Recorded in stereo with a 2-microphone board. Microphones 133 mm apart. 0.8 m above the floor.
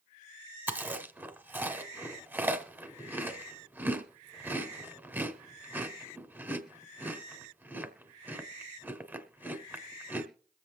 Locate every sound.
0.7 s chewing: 15° right (ahead or behind), 1.4 m